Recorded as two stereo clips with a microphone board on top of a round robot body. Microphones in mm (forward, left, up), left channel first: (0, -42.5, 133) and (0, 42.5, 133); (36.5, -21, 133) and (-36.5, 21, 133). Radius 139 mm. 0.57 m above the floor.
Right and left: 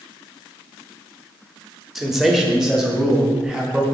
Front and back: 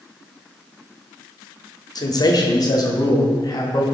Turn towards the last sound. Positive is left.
turn(degrees=10)